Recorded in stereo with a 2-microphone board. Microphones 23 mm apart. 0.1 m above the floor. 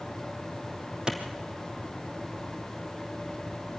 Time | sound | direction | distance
1.1 | a clap | 40° right (ahead or behind) | 2.5 m